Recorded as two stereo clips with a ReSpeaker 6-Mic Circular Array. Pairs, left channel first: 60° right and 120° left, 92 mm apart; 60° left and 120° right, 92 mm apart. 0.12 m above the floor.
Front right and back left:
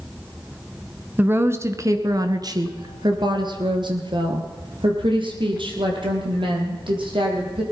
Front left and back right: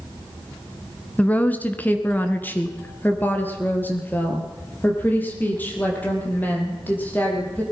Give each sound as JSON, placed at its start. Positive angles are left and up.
{"t": 1.2, "sound": "a woman speaking", "azimuth_deg": 100, "distance_m": 1.2}